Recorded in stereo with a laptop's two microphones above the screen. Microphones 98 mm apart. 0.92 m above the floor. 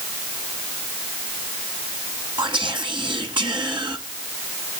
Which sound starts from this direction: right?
Whispering, at 2.4 s.